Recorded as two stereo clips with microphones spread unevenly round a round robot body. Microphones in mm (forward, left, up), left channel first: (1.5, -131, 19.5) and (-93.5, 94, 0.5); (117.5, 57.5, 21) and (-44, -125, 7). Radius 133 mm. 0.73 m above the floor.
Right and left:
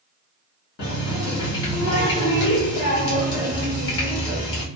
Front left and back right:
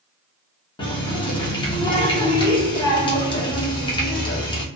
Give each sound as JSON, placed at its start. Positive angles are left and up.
{"t": 0.8, "sound": "a running tap", "azimuth_deg": -25, "distance_m": 0.8}